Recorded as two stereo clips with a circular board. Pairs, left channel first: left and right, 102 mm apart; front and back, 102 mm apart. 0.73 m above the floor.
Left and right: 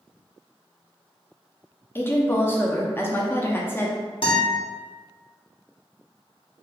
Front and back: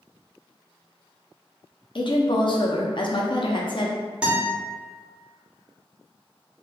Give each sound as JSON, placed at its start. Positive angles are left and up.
{"t": 1.9, "sound": "a woman speaking", "azimuth_deg": 25, "distance_m": 0.7}
{"t": 4.2, "sound": "a guitar", "azimuth_deg": 100, "distance_m": 1.2}